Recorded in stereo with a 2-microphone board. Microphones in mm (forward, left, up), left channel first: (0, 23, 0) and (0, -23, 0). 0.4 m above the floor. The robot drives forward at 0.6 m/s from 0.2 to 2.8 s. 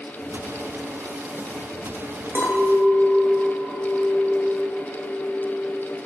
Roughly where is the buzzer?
I don't hear a buzzer.